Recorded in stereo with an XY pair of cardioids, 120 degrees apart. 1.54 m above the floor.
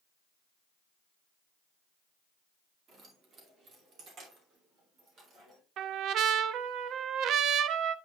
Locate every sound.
2.9 s keys jangling: 50° right, 2 m
5.8 s a trumpet: 65° right, 0.5 m